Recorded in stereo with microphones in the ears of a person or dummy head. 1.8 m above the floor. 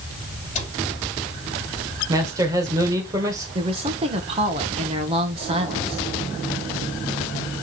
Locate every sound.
0.6 s a cupboard door: 30° left (ahead or behind), 4.5 m
2.1 s a man speaking: 20° right (ahead or behind), 1.9 m
3.5 s a woman speaking: 35° right (ahead or behind), 1.3 m